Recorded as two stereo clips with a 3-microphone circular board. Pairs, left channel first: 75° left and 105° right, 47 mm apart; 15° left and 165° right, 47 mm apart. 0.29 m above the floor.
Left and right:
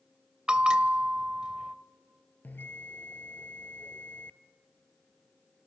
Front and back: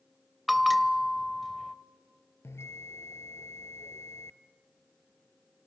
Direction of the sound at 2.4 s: 30° left.